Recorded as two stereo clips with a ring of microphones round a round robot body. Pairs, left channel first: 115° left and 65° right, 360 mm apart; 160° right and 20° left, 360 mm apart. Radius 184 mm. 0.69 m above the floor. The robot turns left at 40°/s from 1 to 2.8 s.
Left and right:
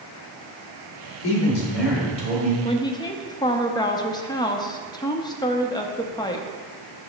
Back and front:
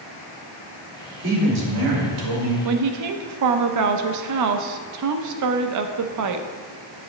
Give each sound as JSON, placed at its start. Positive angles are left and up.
{"t": 1.2, "sound": "a man speaking", "azimuth_deg": 80, "distance_m": 2.0}
{"t": 2.6, "sound": "a woman speaking", "azimuth_deg": 45, "distance_m": 0.6}